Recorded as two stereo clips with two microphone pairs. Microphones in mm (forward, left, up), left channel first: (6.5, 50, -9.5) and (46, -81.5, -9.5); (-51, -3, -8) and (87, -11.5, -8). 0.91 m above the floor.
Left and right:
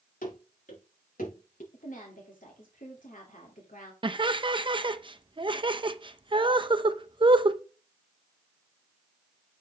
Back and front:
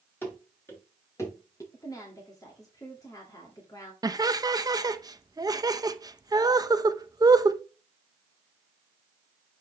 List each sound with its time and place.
0.2 s running footsteps: 100° left, 5.5 m; by 1.6 s 110° left, 4.5 m
1.7 s a woman speaking: 115° left, 2 m
4.0 s laughter: 50° right, 0.7 m